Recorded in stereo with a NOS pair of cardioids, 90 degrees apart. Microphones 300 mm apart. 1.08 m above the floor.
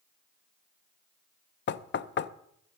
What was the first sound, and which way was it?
Knocking, 40° left.